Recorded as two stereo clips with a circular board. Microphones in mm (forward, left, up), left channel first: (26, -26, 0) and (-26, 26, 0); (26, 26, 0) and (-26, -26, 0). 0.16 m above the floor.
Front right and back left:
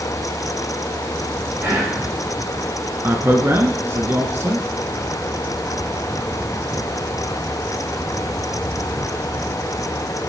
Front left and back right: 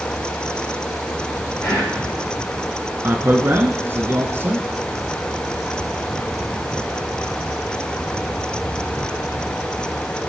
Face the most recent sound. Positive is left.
turn(degrees=180)